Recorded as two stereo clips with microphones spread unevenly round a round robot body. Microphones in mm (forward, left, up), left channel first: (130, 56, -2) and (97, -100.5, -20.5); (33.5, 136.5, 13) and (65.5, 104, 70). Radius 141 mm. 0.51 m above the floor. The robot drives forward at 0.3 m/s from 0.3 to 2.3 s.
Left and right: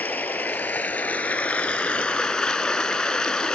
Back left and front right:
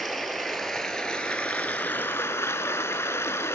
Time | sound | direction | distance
0.0 | running water | 5° left | 0.9 m